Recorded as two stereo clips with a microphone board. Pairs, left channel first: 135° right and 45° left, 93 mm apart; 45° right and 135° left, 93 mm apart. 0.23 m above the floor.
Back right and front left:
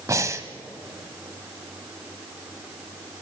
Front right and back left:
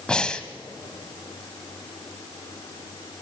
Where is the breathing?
30° left, 1.2 m.